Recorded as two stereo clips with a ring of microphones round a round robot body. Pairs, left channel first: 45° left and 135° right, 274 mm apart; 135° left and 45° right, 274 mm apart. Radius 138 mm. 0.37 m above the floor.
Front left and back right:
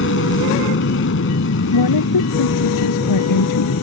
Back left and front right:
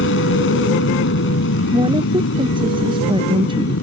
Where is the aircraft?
90° left.